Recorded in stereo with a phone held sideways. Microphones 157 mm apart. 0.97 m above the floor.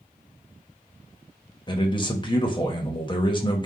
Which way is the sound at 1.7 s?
30° left (ahead or behind).